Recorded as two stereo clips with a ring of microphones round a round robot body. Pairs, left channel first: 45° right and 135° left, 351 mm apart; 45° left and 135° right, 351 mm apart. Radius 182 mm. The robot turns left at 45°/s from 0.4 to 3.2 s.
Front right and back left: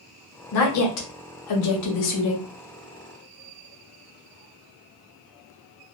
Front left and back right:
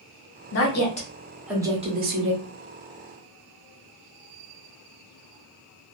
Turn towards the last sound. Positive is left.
turn(degrees=-125)